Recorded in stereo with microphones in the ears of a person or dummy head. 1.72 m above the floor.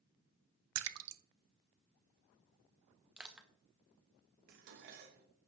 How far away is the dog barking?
No dog barking in this recording.